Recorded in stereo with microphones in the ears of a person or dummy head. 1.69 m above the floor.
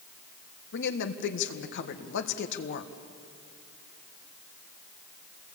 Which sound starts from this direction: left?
A woman speaking, at 0.7 s.